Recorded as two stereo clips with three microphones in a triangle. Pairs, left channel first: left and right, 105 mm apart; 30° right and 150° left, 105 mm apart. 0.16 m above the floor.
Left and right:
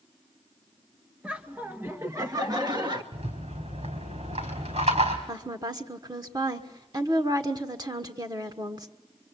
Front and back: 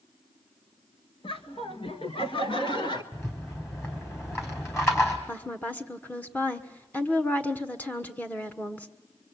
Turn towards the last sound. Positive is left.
turn(degrees=-95)